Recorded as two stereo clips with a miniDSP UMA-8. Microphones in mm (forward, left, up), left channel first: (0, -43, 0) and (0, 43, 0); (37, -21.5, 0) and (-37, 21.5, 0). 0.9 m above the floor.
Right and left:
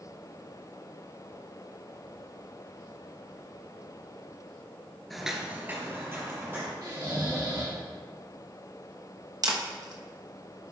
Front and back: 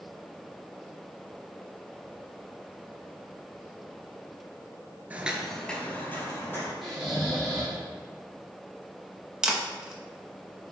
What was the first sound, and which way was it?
Footsteps, 175° right.